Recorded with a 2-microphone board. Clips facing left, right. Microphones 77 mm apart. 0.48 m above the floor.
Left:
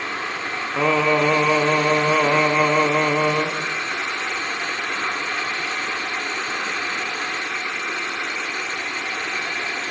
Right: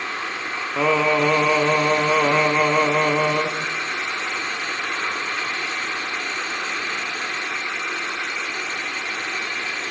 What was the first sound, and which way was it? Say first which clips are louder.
Singing: even; centre (ahead or behind).